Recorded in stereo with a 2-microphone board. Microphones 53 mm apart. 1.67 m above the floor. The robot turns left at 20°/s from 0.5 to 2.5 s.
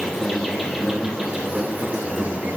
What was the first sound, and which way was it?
An insect, 10° right.